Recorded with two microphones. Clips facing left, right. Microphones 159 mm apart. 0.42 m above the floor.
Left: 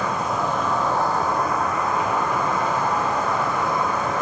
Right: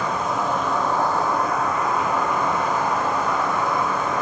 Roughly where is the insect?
Left.